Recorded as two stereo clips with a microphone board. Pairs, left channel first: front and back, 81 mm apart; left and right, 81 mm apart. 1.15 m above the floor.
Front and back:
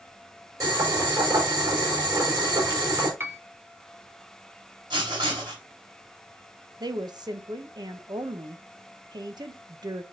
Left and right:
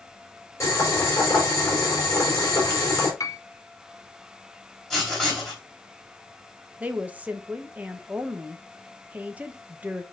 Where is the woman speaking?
160° right, 1.0 m.